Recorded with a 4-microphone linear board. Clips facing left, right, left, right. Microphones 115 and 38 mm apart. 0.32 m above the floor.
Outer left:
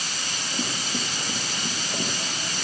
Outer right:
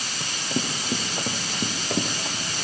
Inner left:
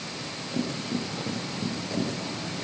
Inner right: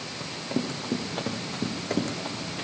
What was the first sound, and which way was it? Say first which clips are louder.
Running footsteps: outer right 4 dB, inner right 1 dB; 60° right (ahead or behind).